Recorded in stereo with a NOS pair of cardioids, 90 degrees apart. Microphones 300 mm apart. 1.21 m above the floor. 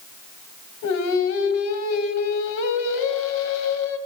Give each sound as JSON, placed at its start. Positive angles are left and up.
{"t": 0.8, "sound": "singing", "azimuth_deg": 65, "distance_m": 2.0}